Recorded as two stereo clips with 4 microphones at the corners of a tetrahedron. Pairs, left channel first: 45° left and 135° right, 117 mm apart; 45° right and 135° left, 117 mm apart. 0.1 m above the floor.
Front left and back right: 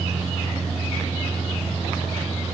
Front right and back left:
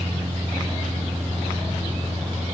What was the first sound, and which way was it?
Only background noise.